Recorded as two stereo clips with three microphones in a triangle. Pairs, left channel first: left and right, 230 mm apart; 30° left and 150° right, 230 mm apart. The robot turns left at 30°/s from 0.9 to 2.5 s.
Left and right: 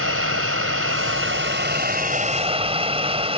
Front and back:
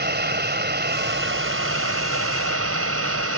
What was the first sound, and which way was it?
Running water, 105° right.